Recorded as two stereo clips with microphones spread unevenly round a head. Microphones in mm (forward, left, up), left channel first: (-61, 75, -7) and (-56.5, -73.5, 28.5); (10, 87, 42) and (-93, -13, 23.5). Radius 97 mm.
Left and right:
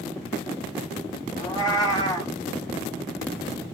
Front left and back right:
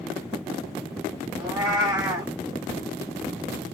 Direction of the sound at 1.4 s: 160° left.